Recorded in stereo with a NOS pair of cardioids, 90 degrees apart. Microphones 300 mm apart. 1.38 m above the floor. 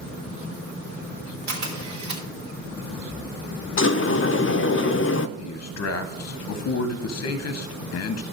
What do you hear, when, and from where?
1.5 s a camera shutter: 65° right, 2.5 m
3.8 s a sliding door: 45° left, 0.6 m
5.4 s a man speaking: 55° left, 0.8 m